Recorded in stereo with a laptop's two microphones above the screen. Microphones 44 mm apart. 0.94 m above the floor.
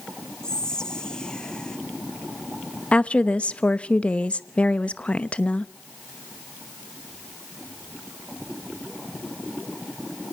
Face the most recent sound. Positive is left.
turn(degrees=25)  # may be behind; listen again after turning